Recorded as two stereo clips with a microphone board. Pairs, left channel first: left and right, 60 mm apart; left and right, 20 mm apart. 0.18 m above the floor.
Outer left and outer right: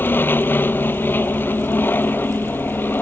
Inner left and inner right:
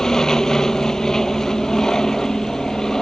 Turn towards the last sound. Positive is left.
turn(degrees=35)  # may be behind; listen again after turning